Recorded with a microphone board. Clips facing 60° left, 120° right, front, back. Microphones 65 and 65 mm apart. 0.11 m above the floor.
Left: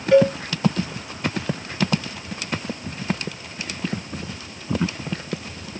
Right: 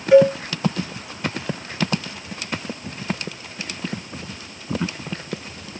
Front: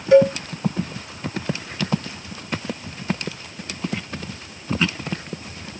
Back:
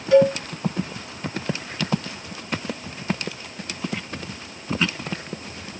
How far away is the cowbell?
About 2.0 m.